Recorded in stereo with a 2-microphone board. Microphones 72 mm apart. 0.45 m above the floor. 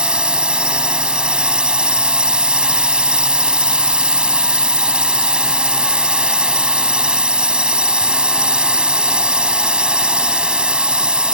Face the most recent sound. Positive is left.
turn(degrees=-15)  # may be behind; listen again after turning